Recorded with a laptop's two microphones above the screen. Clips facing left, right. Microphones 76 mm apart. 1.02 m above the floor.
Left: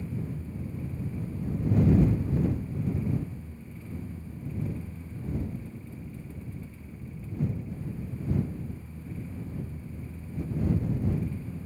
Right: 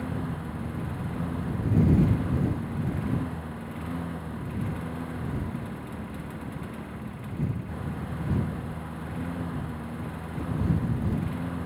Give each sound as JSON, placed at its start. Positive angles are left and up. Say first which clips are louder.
{"t": 0.0, "sound": "a lawn mower", "louder": "right 4 dB", "side_deg": -70}